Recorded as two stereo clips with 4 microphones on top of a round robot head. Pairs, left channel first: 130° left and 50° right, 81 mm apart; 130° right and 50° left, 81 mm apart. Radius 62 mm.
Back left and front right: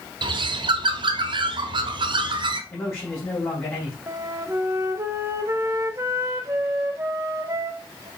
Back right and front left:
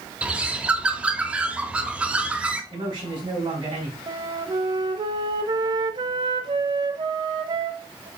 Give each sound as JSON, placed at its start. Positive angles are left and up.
{"t": 0.2, "sound": "a bird", "azimuth_deg": -30, "distance_m": 1.0}
{"t": 2.7, "sound": "a man speaking", "azimuth_deg": 70, "distance_m": 4.5}
{"t": 4.1, "sound": "a flute", "azimuth_deg": 10, "distance_m": 0.8}